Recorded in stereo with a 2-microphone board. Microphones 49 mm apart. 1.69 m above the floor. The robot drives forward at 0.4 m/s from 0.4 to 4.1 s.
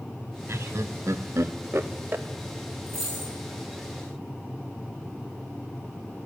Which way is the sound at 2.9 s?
20° left (ahead or behind).